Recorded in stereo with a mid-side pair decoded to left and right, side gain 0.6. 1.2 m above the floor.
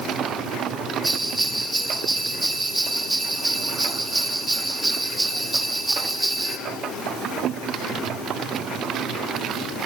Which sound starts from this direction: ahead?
A bell, at 1.0 s.